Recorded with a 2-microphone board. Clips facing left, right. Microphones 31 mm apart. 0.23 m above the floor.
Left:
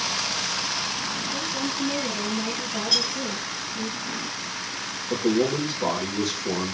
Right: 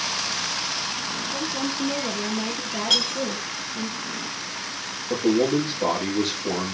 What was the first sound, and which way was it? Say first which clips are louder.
A woman speaking: right 1 dB; 35° right (ahead or behind).